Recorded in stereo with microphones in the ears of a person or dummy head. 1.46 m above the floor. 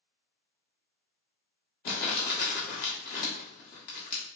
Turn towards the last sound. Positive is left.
turn(degrees=60)  # may be behind; listen again after turning